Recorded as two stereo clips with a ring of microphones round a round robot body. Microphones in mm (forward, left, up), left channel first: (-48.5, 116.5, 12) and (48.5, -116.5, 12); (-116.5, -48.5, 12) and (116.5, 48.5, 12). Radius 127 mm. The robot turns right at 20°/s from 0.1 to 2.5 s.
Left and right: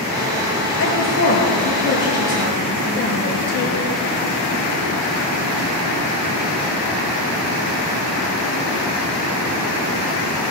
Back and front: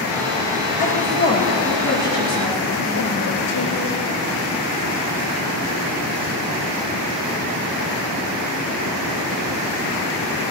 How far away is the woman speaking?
About 6.5 m.